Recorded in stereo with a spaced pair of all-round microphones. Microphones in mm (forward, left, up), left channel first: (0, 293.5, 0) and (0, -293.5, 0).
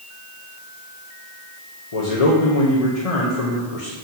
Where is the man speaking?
75° left (ahead or behind), 1.2 m.